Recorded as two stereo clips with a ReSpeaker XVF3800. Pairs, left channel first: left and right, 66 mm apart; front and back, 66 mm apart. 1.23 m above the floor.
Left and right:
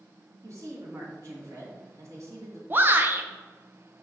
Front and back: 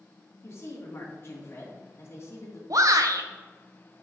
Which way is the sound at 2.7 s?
150° right.